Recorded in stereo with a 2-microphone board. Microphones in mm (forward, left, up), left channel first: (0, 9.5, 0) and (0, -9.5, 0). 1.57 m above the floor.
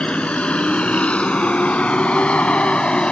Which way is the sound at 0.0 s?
70° left (ahead or behind).